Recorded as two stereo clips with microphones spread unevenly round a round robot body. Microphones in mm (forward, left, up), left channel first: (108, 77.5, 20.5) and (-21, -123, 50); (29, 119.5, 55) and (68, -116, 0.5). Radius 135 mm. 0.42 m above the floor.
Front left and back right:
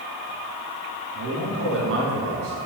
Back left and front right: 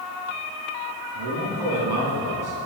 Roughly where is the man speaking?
Right.